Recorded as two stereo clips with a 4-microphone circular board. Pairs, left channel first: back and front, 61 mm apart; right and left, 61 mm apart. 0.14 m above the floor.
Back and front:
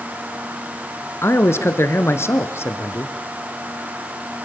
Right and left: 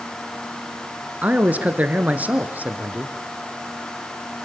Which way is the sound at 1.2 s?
145° left.